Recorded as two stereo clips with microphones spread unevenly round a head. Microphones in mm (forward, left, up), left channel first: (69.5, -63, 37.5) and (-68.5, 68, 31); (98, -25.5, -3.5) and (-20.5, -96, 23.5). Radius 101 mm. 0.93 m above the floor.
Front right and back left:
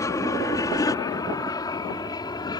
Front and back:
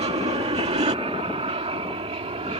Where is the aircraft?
115° right; by 2.6 s 110° right.